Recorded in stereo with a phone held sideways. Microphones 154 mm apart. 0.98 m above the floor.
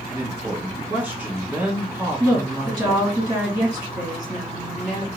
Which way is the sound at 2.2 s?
25° right (ahead or behind).